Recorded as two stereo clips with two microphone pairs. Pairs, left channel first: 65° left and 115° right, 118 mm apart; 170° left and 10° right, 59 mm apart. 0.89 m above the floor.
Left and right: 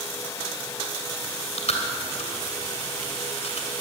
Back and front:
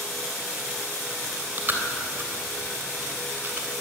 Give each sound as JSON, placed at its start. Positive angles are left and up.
{"t": 1.2, "sound": "chewing", "azimuth_deg": 45, "distance_m": 3.0}